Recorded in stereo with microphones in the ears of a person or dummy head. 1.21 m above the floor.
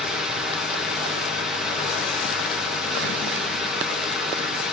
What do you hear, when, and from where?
0.0 s a fan: centre (ahead or behind), 1.7 m